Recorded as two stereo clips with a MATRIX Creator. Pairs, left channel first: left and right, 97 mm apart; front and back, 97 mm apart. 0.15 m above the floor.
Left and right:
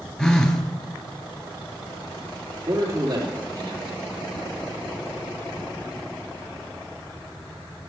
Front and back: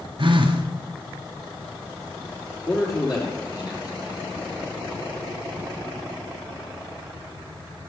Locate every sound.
0.2 s a phone buzzing: 175° left, 0.9 m
2.7 s a man speaking: 45° right, 3.5 m